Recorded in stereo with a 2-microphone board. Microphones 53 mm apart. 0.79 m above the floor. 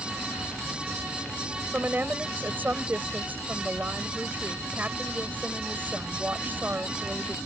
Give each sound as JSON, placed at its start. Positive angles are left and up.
{"t": 1.7, "sound": "a woman speaking", "side_deg": -35}